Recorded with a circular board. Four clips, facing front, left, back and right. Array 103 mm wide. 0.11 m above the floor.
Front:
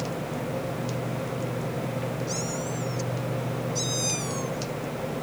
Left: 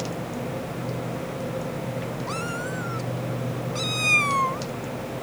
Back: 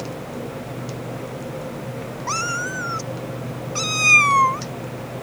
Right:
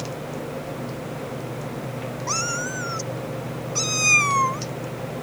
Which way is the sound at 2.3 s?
165° right.